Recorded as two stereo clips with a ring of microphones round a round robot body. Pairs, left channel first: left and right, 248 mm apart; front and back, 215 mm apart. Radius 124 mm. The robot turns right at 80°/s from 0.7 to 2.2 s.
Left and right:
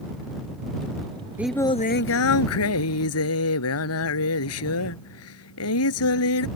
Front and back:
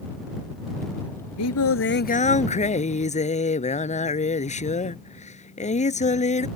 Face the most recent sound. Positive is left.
turn(degrees=60)